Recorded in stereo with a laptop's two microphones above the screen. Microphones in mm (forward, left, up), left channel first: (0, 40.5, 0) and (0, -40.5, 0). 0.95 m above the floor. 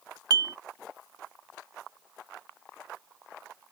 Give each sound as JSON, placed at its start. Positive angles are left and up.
{"t": 0.3, "sound": "dishes clattering", "side_deg": -55}